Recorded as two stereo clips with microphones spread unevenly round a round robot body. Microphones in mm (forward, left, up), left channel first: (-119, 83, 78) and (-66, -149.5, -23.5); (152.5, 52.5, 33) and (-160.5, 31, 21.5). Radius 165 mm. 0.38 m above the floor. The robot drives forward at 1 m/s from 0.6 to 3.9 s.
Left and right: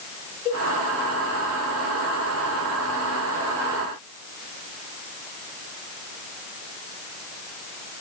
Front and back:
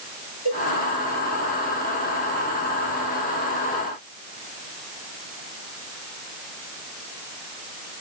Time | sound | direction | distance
0.5 | a cowbell | 5° left | 7 m